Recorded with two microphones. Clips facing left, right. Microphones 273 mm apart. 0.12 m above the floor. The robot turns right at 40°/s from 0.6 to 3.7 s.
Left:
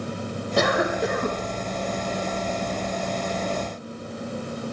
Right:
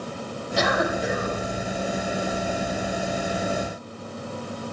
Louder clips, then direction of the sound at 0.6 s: Left 2 dB; 65° left.